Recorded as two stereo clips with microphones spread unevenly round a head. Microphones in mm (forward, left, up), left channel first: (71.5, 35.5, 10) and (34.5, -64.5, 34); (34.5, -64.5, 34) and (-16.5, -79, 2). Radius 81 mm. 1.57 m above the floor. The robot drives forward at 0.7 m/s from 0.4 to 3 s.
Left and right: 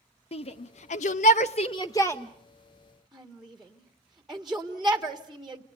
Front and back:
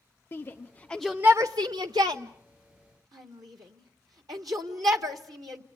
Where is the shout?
40° left, 0.7 m; by 5.6 s 160° left, 1.4 m.